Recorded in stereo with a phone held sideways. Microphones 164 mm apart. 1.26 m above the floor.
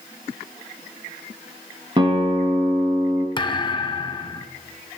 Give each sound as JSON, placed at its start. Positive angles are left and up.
{"t": 2.0, "sound": "a guitar", "side_deg": -30, "distance_m": 2.5}
{"t": 3.4, "sound": "a thud", "side_deg": 30, "distance_m": 0.6}